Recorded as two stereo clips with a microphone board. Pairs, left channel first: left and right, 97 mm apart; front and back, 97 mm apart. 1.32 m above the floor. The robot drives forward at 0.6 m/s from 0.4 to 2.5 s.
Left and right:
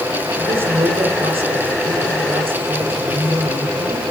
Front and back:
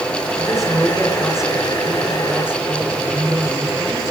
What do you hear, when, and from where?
0.4 s a woman speaking: 90° right, 6.5 m; by 4.0 s 100° right, 6.5 m